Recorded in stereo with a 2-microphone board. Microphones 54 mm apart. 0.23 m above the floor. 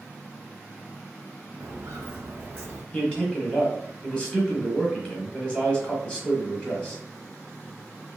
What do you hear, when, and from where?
1.6 s footsteps: 60° right (ahead or behind), 0.8 m; by 2.8 s 20° right (ahead or behind), 0.9 m
2.9 s a man speaking: 20° left (ahead or behind), 1.1 m